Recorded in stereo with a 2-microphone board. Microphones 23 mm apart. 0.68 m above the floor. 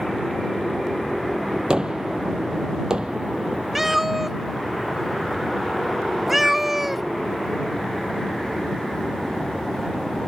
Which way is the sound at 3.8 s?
15° right (ahead or behind).